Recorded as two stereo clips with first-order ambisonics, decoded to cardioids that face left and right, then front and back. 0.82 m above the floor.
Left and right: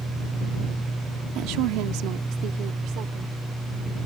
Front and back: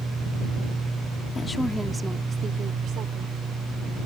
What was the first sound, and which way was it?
A woman speaking, 70° right.